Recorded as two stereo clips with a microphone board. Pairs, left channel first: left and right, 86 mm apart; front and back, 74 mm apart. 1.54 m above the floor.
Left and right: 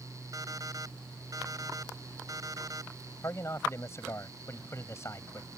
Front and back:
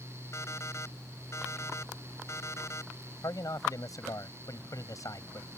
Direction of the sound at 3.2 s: 35° left.